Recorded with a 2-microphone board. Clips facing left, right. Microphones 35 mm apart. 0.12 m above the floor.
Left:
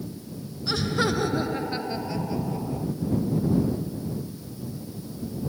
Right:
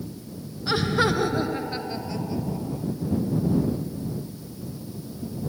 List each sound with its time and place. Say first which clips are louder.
0.7 s laughter: right 3 dB; 25° right (ahead or behind); by 2.9 s 15° left (ahead or behind)